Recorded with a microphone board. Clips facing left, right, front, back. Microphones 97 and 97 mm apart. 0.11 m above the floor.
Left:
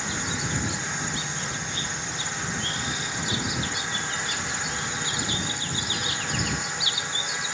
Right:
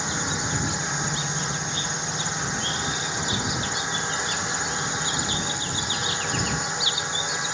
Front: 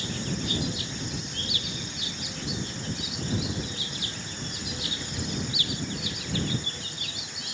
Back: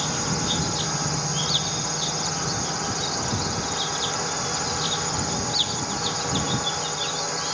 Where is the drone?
160° right.